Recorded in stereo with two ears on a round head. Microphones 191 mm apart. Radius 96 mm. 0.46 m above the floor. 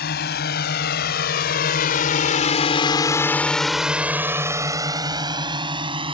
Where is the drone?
50° left (ahead or behind); by 6.1 s 25° right (ahead or behind).